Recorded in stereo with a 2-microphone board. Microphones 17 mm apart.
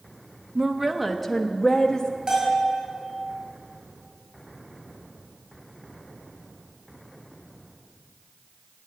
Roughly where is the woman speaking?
Right.